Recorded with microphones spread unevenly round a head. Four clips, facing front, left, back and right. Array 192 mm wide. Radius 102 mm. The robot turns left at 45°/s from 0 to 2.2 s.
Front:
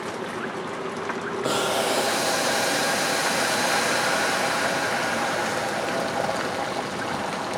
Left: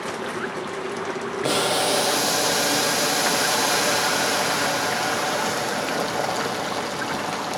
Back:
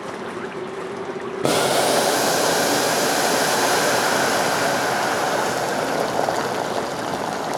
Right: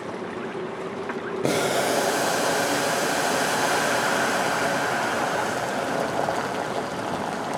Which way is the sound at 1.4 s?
150° right.